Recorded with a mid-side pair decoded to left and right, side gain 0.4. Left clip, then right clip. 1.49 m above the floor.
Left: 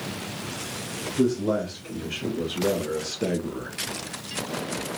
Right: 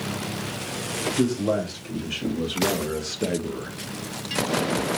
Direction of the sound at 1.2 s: 30° right.